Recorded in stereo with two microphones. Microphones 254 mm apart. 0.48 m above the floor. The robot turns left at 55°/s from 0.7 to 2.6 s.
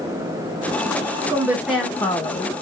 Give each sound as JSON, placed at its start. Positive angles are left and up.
{"t": 1.3, "sound": "a woman speaking", "azimuth_deg": -155, "distance_m": 1.0}